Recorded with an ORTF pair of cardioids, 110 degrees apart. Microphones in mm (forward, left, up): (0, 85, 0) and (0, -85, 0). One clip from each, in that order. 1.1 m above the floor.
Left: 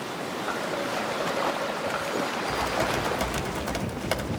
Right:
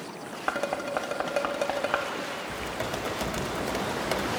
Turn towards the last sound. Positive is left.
turn(degrees=15)